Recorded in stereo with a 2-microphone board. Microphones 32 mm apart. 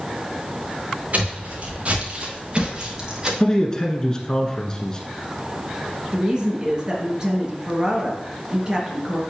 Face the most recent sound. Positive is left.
turn(degrees=-20)  # may be behind; listen again after turning